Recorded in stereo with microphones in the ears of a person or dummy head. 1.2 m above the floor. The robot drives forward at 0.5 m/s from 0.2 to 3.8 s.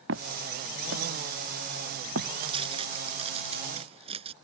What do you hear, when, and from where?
0.1 s footsteps: 75° right (ahead or behind); by 2.3 s 70° right (ahead or behind)
2.4 s tearing paper: 35° right (ahead or behind)